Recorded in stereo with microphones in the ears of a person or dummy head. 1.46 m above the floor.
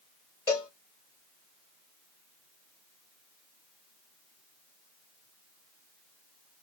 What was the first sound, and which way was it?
A cowbell, 5° left (ahead or behind).